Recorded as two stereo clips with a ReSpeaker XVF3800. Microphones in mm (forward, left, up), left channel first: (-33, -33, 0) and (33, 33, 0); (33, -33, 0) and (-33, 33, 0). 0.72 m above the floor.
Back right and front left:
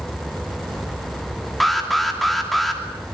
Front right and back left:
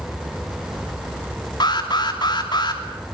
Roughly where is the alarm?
Ahead right.